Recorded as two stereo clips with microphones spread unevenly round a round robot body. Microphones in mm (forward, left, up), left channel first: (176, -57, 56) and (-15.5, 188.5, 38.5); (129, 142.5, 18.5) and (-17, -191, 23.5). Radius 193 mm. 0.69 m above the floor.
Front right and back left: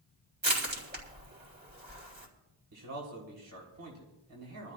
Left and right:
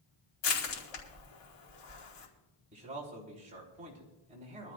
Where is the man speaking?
175° left, 3.5 m.